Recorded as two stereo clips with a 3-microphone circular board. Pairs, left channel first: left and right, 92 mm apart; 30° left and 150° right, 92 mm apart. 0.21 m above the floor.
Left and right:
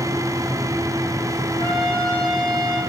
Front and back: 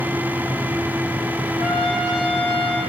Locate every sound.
1.6 s a trumpet: 60° left, 4.5 m